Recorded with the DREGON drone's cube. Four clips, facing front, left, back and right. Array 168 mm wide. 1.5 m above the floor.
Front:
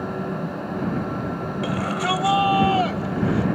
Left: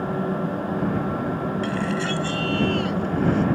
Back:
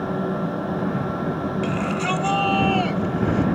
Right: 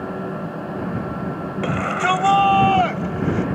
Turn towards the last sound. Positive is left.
turn(degrees=-75)